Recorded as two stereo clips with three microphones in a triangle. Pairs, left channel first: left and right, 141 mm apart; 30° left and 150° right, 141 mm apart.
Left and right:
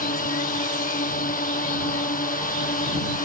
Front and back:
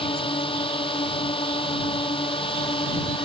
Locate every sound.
0.0 s a drone: 80° left